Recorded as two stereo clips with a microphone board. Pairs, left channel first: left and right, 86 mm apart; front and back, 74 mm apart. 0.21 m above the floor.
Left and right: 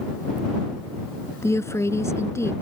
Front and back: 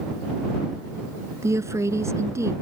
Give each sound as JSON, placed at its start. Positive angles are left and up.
{"t": 1.4, "sound": "a woman speaking", "azimuth_deg": 140}